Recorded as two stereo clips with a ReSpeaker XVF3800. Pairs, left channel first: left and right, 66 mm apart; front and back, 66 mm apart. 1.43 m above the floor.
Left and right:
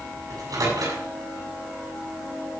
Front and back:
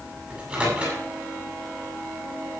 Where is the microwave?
105° right, 7.5 m.